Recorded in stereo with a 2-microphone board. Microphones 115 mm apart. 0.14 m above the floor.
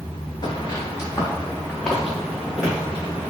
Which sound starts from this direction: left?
Footsteps, at 0.4 s.